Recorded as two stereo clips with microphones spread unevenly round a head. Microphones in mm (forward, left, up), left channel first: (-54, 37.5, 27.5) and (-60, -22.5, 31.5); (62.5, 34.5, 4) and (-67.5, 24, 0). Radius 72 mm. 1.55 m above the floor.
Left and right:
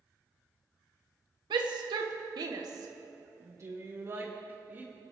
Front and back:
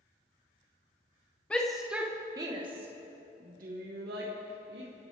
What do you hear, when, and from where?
1.5 s a shout: 80° right, 1.4 m; by 4.9 s 150° right, 2.5 m